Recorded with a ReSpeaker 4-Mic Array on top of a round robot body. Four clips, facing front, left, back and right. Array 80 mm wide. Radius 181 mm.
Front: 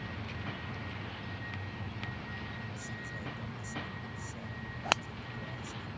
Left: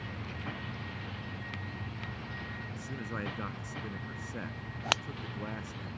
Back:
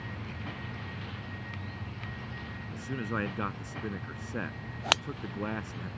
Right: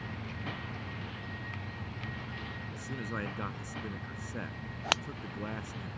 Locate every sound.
2.7 s a man speaking: 175° right